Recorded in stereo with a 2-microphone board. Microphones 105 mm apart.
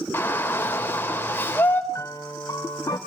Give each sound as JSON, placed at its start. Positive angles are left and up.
{"t": 0.1, "sound": "a shout", "side_deg": 20, "distance_m": 3.5}
{"t": 1.9, "sound": "a piano", "side_deg": 30, "distance_m": 2.5}